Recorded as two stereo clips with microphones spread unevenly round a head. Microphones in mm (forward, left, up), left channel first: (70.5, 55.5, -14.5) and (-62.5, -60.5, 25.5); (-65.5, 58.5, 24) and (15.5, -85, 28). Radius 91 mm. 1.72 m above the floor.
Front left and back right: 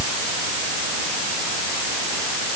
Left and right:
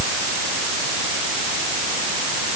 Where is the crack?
No crack in this recording.